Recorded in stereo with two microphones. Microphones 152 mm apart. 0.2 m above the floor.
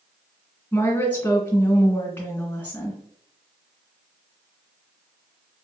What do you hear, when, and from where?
0.7 s a woman speaking: 10° left (ahead or behind), 2 m